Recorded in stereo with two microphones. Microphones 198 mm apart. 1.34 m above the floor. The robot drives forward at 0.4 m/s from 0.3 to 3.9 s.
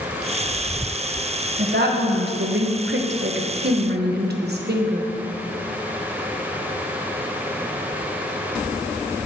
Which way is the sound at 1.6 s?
60° right (ahead or behind).